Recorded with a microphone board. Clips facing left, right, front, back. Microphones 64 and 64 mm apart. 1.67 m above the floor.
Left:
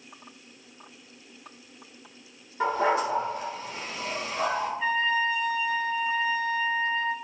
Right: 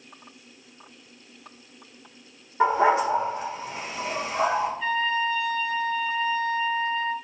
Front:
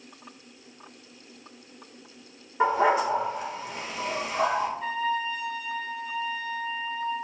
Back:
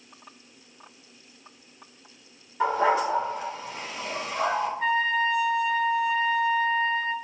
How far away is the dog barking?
About 1.4 m.